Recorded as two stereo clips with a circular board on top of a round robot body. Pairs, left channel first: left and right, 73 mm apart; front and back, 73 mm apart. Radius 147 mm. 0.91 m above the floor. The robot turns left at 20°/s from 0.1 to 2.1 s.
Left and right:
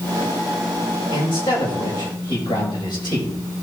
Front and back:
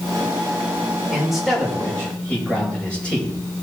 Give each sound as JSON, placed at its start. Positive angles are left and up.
{"t": 1.1, "sound": "a man speaking", "azimuth_deg": 95, "distance_m": 5.5}